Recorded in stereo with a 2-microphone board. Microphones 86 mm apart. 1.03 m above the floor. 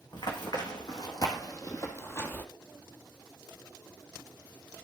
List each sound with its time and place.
0.1 s running footsteps: 55° left (ahead or behind), 2.5 m; by 2.5 s 25° left (ahead or behind), 1.2 m